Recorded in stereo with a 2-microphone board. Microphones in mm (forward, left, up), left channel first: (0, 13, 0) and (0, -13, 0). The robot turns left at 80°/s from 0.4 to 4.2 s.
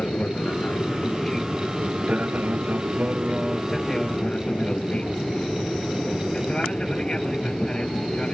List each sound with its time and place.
0.0 s an aircraft: 75° left (ahead or behind); by 8.3 s 30° left (ahead or behind)